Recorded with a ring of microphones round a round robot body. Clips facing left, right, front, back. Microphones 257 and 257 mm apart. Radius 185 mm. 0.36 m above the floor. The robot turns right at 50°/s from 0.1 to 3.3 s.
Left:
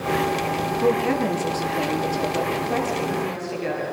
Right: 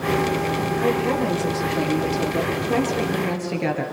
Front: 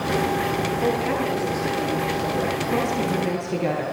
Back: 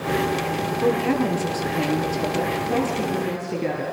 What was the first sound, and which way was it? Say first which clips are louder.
A woman speaking: left 2 dB, back 5 dB; 125° left.